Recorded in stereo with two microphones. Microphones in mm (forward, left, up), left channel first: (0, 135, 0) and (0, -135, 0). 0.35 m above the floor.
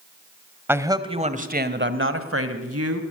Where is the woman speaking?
10° right (ahead or behind), 1.5 m; by 3.0 s 65° right (ahead or behind), 1.9 m.